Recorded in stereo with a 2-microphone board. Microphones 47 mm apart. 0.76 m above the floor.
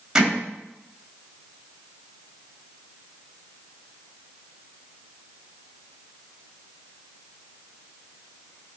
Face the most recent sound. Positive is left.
turn(degrees=-20)  # may be behind; listen again after turning